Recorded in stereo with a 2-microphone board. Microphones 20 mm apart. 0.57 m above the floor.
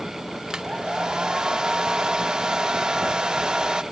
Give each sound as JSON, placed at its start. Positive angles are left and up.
{"t": 0.5, "sound": "a hair dryer", "side_deg": -45, "distance_m": 0.6}